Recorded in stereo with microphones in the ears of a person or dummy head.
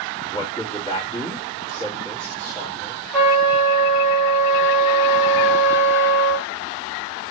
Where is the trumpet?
Centre (ahead or behind), 1.3 m.